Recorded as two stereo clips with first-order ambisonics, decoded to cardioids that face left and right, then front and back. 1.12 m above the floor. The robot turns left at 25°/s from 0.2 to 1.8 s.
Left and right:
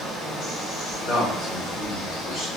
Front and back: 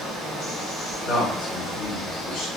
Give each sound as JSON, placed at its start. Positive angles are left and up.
{"t": 0.0, "sound": "running water", "azimuth_deg": 150, "distance_m": 1.5}
{"t": 1.1, "sound": "a man speaking", "azimuth_deg": 55, "distance_m": 1.7}